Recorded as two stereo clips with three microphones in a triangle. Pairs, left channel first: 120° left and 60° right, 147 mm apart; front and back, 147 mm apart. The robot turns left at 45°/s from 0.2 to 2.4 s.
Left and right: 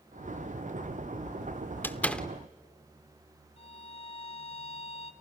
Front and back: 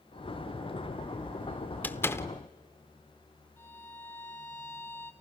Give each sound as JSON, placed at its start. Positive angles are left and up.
{"t": 1.8, "sound": "a door slam", "azimuth_deg": 60, "distance_m": 0.9}
{"t": 3.6, "sound": "a violin", "azimuth_deg": 75, "distance_m": 2.0}